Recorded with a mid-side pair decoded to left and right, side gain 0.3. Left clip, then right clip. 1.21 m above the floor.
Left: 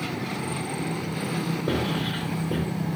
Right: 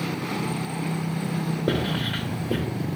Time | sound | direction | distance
1.7 | writing | 50° right | 0.8 m